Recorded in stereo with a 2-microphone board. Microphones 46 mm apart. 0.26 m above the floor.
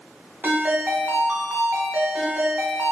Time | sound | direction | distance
0.4 | a ringtone | 50° right (ahead or behind) | 0.6 m